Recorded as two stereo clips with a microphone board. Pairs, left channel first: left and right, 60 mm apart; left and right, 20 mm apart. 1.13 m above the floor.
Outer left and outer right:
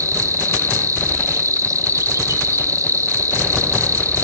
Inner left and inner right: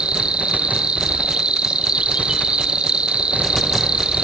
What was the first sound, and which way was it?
An insect, 60° right (ahead or behind).